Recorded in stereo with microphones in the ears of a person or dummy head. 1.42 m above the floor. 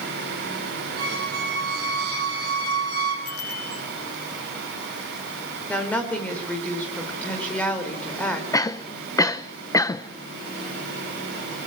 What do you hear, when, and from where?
1.0 s a squeak: 60° right (ahead or behind), 3.5 m
3.2 s a bicycle bell: 85° left, 6.5 m
5.7 s a woman speaking: 5° left (ahead or behind), 5 m
8.5 s a cough: 15° left (ahead or behind), 1.0 m